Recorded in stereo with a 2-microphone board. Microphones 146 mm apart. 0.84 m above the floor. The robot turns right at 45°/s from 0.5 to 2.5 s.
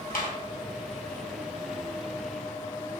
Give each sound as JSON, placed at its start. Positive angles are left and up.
{"t": 0.1, "sound": "a clap", "side_deg": 75, "distance_m": 3.5}